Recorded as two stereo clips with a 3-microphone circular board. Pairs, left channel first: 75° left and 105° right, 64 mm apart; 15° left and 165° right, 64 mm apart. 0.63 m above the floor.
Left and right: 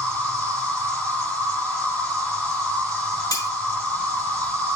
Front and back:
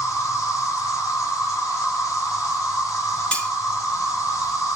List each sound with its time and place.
0.0 s an insect: 5° left, 2.5 m
3.3 s cutlery clinking: 90° left, 1.0 m